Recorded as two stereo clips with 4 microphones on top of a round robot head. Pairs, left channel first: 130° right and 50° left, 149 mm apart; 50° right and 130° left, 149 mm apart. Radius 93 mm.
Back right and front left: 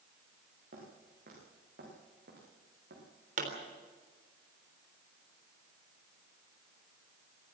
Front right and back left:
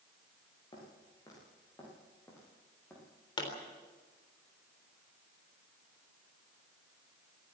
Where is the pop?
10° left, 3.5 m.